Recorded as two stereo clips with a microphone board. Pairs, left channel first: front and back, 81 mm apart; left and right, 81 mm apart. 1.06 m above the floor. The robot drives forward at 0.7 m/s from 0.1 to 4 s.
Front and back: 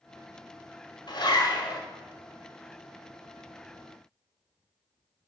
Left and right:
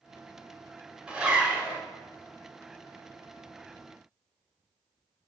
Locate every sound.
1.1 s a zipper: 10° right, 2 m; by 1.8 s 15° right, 1.5 m